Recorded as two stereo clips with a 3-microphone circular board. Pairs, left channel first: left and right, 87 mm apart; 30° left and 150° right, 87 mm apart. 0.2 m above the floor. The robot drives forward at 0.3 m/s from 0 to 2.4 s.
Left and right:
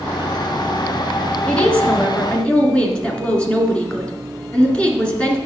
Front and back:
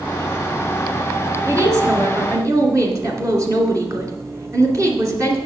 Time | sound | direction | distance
1.5 | a woman speaking | 165° left | 2.5 m